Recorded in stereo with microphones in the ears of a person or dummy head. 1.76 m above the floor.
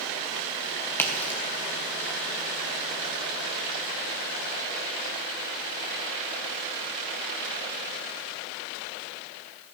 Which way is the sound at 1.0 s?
15° left (ahead or behind).